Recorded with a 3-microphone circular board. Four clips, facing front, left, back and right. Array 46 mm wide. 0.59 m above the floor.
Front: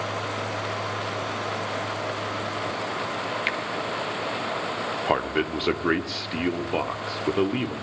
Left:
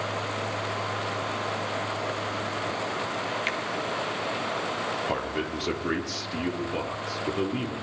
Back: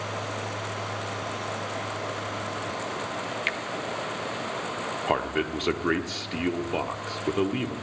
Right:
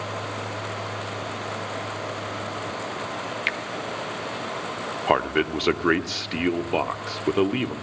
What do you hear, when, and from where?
3.5 s a finger snap: 80° right, 0.7 m
5.1 s a man speaking: 80° right, 1.0 m